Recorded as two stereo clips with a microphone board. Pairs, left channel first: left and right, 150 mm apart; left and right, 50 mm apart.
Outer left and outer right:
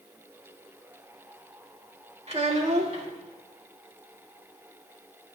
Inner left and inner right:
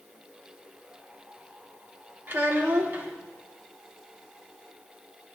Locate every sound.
2.3 s a child speaking: 45° right (ahead or behind), 2 m